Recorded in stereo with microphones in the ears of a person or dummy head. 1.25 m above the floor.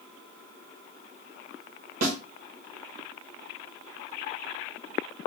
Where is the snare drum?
50° right (ahead or behind), 1.4 m.